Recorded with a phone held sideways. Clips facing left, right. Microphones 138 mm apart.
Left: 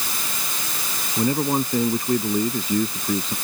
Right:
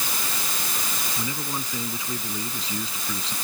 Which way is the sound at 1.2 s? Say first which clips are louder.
Left 14 dB; 55° left (ahead or behind).